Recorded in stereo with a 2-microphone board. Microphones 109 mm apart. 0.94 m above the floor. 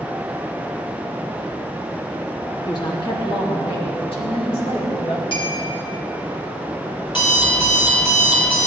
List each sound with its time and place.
2.7 s a woman speaking: 40° left (ahead or behind), 1.5 m; by 5.2 s 65° left (ahead or behind), 2.5 m
5.3 s a clink: 50° left (ahead or behind), 2.5 m
7.1 s an alarm clock: 50° left (ahead or behind), 2.5 m